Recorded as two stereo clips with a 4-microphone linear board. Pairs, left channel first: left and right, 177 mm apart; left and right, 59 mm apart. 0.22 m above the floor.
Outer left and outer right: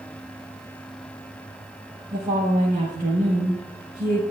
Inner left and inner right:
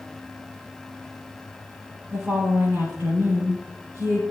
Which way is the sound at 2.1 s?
45° right (ahead or behind).